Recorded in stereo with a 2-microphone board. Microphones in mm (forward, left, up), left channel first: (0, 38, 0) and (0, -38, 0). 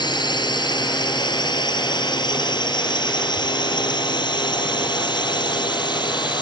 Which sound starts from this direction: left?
A drone, at 0.0 s.